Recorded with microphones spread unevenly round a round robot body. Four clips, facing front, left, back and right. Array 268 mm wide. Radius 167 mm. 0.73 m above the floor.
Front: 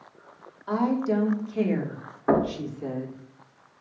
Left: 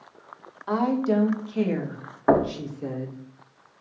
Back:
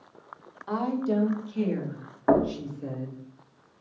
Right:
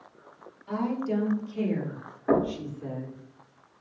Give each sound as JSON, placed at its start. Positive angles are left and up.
{"t": 0.7, "sound": "a woman speaking", "azimuth_deg": 55, "distance_m": 2.0}
{"t": 2.3, "sound": "knocking", "azimuth_deg": 75, "distance_m": 1.8}